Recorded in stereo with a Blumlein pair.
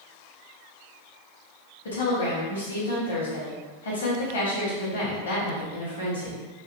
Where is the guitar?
No guitar in this recording.